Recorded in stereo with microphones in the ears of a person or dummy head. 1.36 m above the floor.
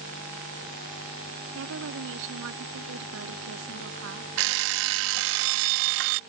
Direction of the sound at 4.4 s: 55° right (ahead or behind).